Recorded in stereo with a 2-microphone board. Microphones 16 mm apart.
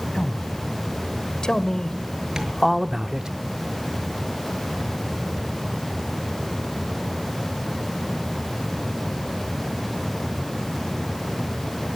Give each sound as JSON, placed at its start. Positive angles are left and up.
{"t": 0.1, "sound": "a man speaking", "side_deg": 65, "distance_m": 3.0}
{"t": 2.4, "sound": "tapping", "side_deg": -40, "distance_m": 6.0}